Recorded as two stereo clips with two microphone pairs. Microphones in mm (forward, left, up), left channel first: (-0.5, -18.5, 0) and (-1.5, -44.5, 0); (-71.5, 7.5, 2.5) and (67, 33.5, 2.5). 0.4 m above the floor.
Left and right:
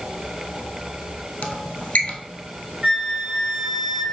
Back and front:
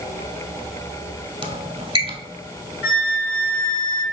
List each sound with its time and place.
1.4 s a squeak: 60° left, 0.7 m
2.8 s a flute: 85° right, 1.6 m